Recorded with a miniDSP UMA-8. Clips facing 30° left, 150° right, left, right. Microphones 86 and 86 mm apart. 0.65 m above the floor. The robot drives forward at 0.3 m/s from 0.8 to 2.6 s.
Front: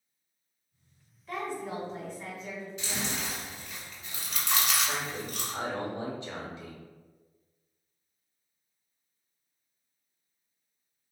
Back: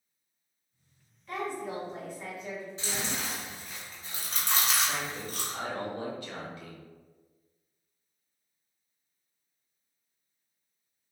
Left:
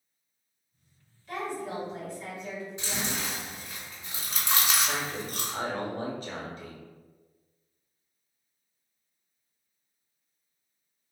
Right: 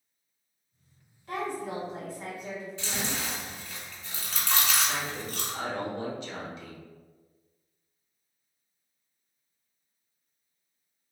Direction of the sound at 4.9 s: 85° left.